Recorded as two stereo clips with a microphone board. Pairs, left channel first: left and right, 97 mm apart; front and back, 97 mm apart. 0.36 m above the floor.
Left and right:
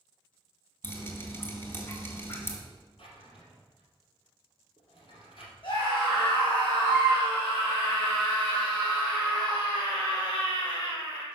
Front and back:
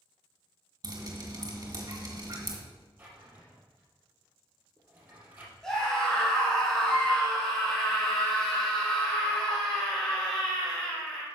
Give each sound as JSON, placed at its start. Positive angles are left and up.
{"t": 0.8, "sound": "dripping", "azimuth_deg": 145, "distance_m": 1.9}
{"t": 3.0, "sound": "a drawer", "azimuth_deg": 110, "distance_m": 2.5}
{"t": 5.6, "sound": "a scream", "azimuth_deg": 85, "distance_m": 3.0}